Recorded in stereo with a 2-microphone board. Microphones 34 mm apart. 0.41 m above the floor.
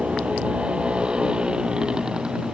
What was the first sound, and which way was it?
A motorcycle, 35° right (ahead or behind).